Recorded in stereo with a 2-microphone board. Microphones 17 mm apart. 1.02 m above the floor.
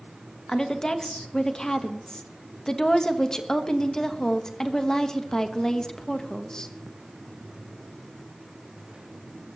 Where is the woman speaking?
35° left (ahead or behind), 1.2 m.